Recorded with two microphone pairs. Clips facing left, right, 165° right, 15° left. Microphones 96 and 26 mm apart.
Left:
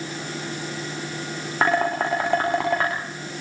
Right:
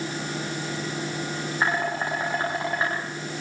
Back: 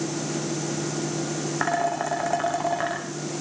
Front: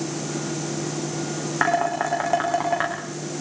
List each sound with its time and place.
1.6 s dishes clattering: 85° left, 7.5 m